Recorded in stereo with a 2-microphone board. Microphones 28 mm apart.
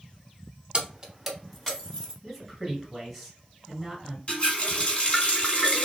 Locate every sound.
0.7 s keys jangling: 30° right (ahead or behind), 1.0 m; by 2.1 s 25° left (ahead or behind), 1.4 m
2.2 s a man speaking: centre (ahead or behind), 1.9 m
4.3 s a running tap: 40° left (ahead or behind), 1.2 m